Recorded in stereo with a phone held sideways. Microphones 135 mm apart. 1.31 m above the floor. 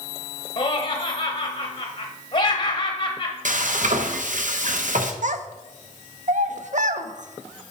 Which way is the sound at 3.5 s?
70° right (ahead or behind).